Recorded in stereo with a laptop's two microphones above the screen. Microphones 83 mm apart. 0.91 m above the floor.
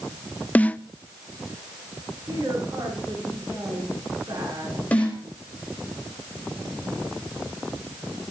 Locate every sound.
0.6 s a snare drum: 20° left (ahead or behind), 0.6 m
2.3 s a woman speaking: 50° right (ahead or behind), 8.5 m
4.9 s a snare drum: 15° left (ahead or behind), 5 m